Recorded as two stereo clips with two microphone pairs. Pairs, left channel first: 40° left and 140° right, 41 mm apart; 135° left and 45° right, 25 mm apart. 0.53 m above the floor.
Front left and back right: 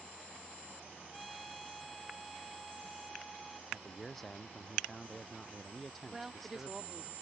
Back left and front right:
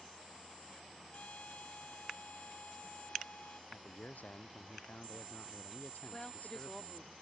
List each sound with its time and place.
1.1 s a trumpet: 135° left
3.7 s a man speaking: 125° left
6.1 s a woman speaking: 170° left